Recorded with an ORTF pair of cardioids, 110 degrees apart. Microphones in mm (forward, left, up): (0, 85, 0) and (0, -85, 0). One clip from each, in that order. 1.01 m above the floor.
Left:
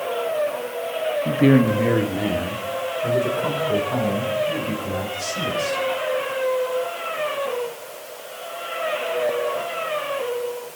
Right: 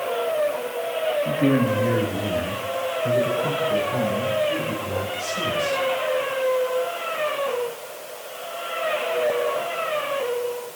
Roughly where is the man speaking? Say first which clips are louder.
Left 3 dB; ahead left.